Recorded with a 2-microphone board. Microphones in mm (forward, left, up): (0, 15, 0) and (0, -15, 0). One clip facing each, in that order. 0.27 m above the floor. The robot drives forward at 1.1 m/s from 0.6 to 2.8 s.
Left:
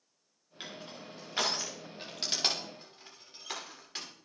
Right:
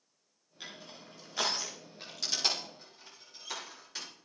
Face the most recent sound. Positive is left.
turn(degrees=30)  # may be behind; listen again after turning